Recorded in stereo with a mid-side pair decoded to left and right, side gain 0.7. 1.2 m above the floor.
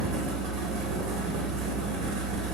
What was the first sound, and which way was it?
A fan, 65° right.